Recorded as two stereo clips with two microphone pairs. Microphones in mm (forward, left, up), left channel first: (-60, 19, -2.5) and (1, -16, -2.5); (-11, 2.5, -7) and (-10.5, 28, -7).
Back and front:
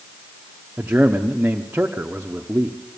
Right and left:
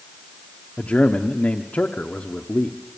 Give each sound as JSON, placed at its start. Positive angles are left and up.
{"t": 0.8, "sound": "a man speaking", "azimuth_deg": -100, "distance_m": 0.9}